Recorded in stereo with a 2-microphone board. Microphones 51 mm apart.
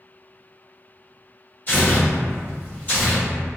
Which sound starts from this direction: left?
Tearing paper, at 1.7 s.